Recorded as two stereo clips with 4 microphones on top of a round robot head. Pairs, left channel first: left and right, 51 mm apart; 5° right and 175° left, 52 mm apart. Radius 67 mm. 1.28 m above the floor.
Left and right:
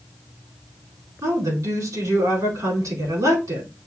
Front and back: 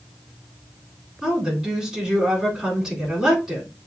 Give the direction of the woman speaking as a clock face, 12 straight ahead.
3 o'clock.